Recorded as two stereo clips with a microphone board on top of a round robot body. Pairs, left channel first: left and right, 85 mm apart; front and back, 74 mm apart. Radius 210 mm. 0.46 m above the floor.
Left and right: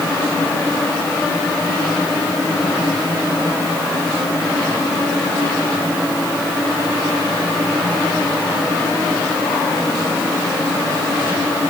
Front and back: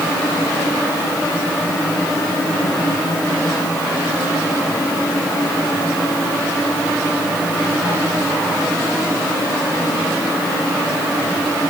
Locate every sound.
Only background noise.